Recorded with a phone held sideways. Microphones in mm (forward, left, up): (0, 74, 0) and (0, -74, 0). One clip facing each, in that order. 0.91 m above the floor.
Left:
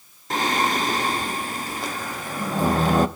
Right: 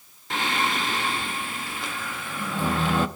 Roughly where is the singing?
Left.